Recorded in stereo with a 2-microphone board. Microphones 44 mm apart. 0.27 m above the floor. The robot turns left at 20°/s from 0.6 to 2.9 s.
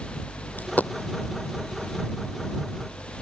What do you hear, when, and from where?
0.6 s a dropped coin: 45° left (ahead or behind); by 0.9 s 35° left (ahead or behind)